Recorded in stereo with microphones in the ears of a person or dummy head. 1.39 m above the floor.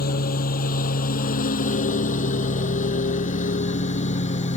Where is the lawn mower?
50° left (ahead or behind); by 4.6 s 40° left (ahead or behind).